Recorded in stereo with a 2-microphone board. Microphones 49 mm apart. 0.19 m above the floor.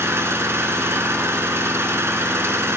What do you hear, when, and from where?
0.0 s an engine running: 60° right (ahead or behind), 1.1 m